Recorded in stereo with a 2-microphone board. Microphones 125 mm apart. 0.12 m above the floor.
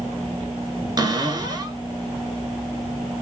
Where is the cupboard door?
30° right (ahead or behind), 0.7 m.